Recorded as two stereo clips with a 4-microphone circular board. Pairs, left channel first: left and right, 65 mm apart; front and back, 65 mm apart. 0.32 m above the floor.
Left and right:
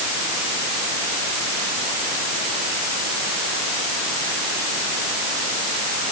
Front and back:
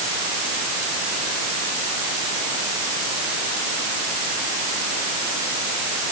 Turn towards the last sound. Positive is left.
No sound to turn to.